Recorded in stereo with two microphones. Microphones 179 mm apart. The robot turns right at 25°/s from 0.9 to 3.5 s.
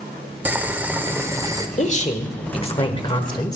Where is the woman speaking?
105° left, 1.1 m; by 3.6 s 150° left, 1.1 m.